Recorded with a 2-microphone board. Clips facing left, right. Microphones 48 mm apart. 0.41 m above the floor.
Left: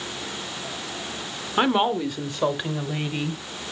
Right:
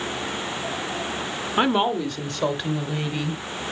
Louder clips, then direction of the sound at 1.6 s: Even; centre (ahead or behind).